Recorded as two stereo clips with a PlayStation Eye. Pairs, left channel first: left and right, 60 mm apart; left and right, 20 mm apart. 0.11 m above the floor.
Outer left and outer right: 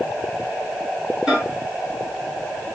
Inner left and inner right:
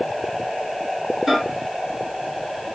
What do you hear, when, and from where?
1.3 s a microwave: 10° right (ahead or behind), 2.5 m